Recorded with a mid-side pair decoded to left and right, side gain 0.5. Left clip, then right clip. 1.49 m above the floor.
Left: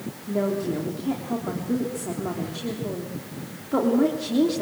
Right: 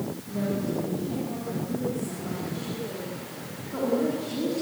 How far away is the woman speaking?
About 3.5 m.